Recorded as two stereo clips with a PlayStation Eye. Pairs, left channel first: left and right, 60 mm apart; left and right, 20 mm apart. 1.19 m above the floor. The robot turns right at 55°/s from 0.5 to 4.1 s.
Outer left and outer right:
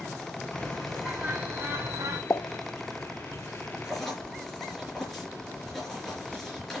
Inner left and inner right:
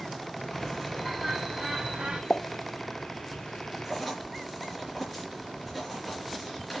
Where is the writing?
10° right (ahead or behind), 4.5 m; by 6.8 s 5° left (ahead or behind), 4.5 m.